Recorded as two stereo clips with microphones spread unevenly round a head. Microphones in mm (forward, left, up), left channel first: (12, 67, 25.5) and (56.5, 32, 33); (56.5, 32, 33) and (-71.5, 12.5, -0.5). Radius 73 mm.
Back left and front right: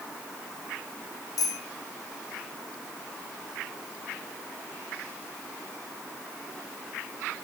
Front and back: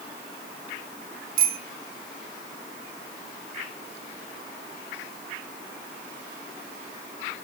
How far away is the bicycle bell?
About 4.5 m.